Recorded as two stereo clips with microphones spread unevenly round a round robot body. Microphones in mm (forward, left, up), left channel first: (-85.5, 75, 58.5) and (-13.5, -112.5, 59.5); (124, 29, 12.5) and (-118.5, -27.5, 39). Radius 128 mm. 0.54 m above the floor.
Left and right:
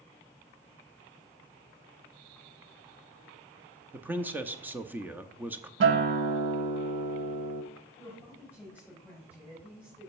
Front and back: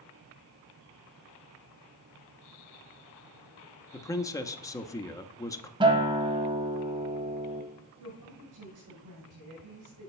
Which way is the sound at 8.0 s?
150° right.